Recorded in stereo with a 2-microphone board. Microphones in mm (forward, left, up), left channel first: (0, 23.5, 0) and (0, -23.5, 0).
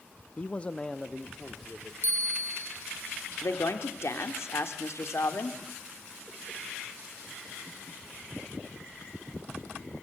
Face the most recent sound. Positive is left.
turn(degrees=65)  # may be behind; listen again after turning